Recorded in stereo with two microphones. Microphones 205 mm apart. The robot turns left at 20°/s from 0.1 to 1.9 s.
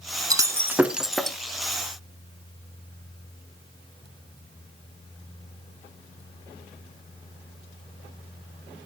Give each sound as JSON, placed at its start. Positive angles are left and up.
{"t": 0.3, "sound": "breaking glass", "side_deg": -20, "distance_m": 0.9}